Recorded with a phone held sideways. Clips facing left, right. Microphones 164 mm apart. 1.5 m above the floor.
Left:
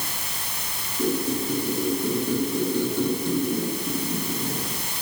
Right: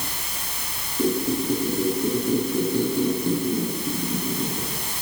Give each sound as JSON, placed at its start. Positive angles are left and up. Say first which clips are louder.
{"t": 1.0, "sound": "a squeak", "louder": "right 2 dB", "side_deg": -15, "distance_m": 6.5}